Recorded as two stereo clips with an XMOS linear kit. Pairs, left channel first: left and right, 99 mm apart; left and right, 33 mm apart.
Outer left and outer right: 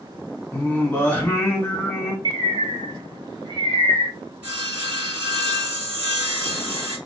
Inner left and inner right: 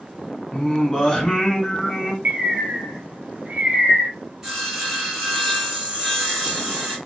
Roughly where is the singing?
Left.